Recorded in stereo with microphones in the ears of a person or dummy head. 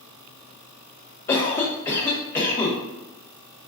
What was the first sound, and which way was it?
A cough, 10° left (ahead or behind).